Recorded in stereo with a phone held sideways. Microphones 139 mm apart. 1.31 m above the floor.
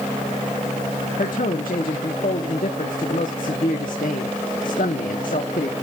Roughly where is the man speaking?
Left.